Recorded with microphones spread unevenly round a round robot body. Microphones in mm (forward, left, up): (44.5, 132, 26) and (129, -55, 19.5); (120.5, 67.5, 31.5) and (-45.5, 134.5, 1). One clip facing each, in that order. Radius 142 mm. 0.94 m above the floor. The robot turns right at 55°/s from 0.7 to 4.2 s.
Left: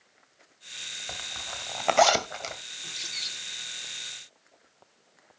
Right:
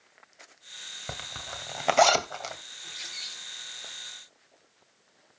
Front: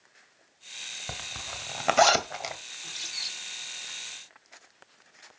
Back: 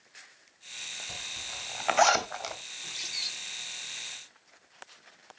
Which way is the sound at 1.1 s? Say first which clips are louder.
Right 2 dB, front 7 dB; 25° right.